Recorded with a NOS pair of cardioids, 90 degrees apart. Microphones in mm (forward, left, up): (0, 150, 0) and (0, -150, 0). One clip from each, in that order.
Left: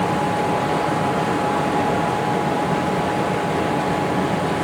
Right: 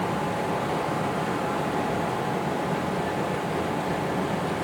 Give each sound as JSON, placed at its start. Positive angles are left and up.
{"t": 0.0, "sound": "a fan", "azimuth_deg": 25, "distance_m": 0.8}